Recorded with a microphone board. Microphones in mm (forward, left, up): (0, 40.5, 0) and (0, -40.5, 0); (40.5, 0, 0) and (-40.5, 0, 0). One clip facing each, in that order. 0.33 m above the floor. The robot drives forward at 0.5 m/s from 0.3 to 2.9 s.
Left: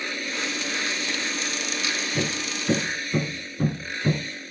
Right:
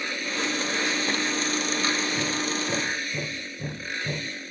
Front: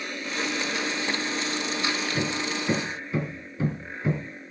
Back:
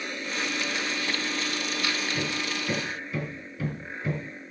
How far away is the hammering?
About 2.5 m.